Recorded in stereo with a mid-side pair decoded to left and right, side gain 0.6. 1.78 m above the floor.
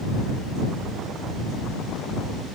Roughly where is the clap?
No clap in this recording.